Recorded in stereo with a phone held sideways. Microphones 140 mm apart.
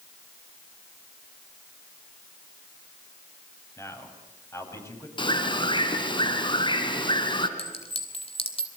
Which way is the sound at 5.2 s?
35° left (ahead or behind).